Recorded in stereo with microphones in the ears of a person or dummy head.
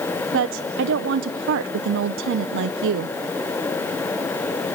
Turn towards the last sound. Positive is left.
turn(degrees=-65)  # may be behind; listen again after turning